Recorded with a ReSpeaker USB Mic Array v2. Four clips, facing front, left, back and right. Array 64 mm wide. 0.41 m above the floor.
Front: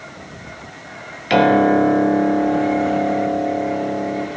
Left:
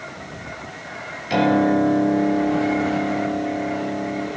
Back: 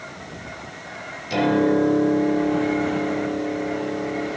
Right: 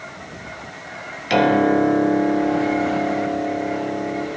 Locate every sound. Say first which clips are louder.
1.3 s a piano: right 2 dB, front 6 dB; 20° right, 1.0 m